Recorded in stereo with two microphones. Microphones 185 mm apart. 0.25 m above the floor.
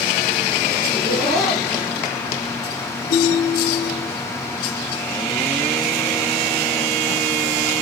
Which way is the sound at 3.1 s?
65° left (ahead or behind).